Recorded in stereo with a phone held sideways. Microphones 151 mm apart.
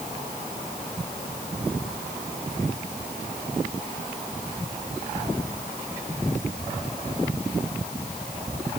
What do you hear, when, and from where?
Only background noise.